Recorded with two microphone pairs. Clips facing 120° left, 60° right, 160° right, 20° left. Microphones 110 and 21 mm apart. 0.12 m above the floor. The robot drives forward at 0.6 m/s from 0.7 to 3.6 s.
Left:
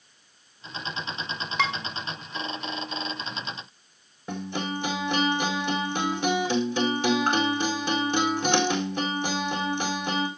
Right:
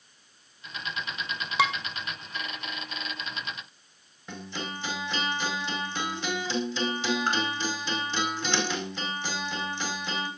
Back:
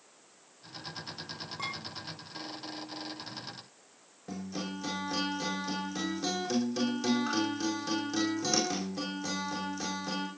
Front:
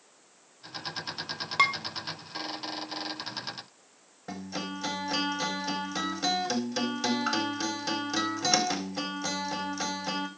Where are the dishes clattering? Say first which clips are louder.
Right 2 dB, front 14 dB; 25° left, 2 m.